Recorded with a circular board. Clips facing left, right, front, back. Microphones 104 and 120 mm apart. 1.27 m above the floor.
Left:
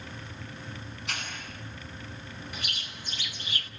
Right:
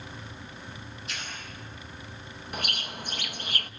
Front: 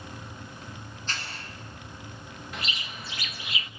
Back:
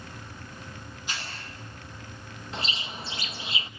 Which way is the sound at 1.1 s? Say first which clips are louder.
Left 3 dB, even; 100° left.